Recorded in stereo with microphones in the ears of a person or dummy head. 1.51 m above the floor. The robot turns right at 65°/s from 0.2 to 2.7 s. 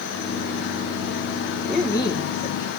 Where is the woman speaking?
Straight ahead, 2 m; by 2.7 s 65° left, 2 m.